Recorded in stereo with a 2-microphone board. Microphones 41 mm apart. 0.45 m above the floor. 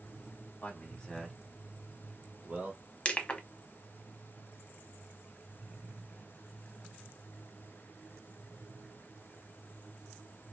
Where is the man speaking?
35° left (ahead or behind), 0.9 m; by 2.8 s 45° right (ahead or behind), 1.1 m.